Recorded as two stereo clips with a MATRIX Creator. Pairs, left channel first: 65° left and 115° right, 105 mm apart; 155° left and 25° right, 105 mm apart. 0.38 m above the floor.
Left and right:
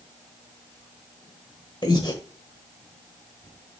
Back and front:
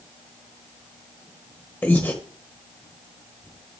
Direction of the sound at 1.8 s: 95° left.